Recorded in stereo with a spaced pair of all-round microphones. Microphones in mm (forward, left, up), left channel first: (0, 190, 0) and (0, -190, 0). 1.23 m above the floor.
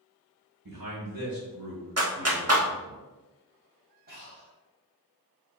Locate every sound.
0.7 s a man speaking: 75° right (ahead or behind), 1.4 m; by 3.0 s 55° right (ahead or behind), 3 m
2.0 s a clap: 45° right (ahead or behind), 1.0 m
4.1 s breathing: 25° right (ahead or behind), 3 m